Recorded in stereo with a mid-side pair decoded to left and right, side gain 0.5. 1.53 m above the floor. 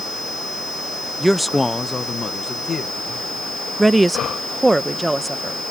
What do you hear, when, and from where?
1.2 s a man speaking: 15° right; by 3.7 s 45° left
3.8 s a woman speaking: 15° right